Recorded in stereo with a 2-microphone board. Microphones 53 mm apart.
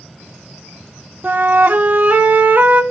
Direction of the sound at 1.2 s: 35° right (ahead or behind).